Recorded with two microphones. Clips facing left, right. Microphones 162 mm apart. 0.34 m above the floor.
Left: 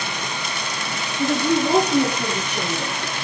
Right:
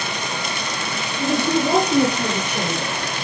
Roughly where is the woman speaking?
Centre.